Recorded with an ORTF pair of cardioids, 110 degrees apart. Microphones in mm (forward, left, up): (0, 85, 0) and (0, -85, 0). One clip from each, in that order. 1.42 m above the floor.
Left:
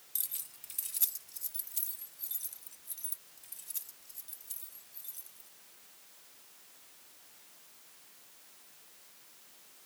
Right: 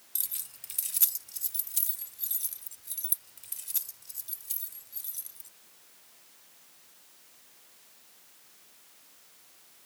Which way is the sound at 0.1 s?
15° right.